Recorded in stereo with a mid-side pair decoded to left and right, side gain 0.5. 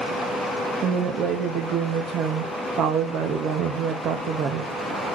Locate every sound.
0.8 s a woman speaking: 65° right, 0.8 m